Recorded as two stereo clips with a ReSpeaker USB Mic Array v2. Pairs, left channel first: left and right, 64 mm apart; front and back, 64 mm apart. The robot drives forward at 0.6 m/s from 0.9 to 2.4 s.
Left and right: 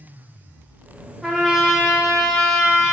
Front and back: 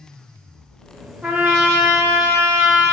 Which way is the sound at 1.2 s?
165° right.